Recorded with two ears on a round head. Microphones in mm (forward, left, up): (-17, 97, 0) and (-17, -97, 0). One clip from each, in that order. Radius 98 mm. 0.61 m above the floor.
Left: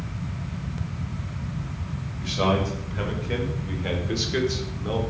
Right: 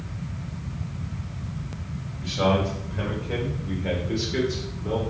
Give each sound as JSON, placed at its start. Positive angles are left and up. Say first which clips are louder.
{"t": 2.2, "sound": "a man speaking", "louder": "right 1 dB", "side_deg": 25, "distance_m": 2.5}